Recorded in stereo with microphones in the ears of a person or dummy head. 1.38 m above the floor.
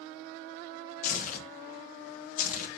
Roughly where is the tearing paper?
Left.